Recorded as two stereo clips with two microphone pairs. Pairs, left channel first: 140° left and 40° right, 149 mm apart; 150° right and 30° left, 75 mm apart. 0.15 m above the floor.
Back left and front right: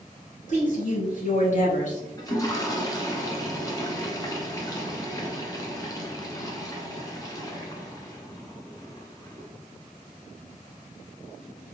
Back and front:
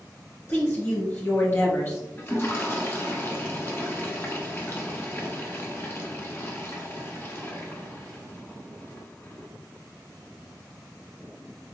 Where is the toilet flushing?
175° right, 1.1 m.